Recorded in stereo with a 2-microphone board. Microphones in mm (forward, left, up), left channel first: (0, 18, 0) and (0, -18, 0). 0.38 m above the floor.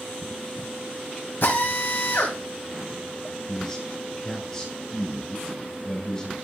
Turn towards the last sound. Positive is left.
turn(degrees=15)  # may be behind; listen again after turning